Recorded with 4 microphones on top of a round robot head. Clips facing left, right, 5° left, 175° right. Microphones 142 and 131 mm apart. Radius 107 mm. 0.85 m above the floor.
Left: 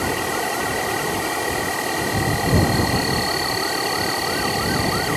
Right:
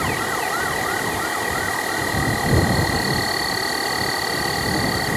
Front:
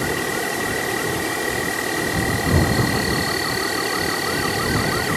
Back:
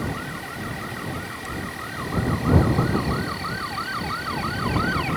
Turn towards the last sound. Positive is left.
turn(degrees=15)